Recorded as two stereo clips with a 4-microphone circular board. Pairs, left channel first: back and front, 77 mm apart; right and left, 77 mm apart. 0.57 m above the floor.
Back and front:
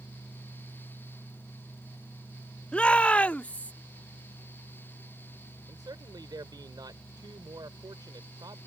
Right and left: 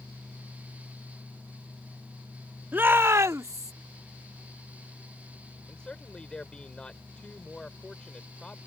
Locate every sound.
2.7 s a shout: 125° left; by 3.7 s 115° left
5.7 s a man speaking: 10° right